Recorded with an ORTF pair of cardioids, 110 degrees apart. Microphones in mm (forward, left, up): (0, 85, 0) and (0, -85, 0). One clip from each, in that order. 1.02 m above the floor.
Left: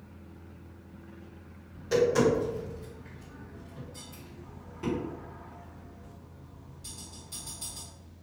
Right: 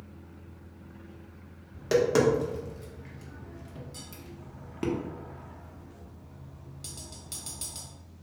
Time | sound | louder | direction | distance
0.0 | a fan | right 1 dB | 55° right | 1.5 m
1.7 | tapping | right 1 dB | 65° right | 1.1 m